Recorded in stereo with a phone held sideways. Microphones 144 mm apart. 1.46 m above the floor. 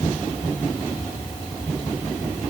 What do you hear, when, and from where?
Only background noise.